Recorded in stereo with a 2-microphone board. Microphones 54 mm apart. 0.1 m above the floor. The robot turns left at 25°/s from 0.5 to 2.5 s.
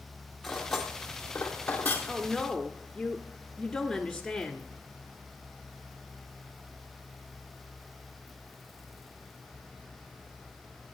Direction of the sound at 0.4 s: 5° left (ahead or behind).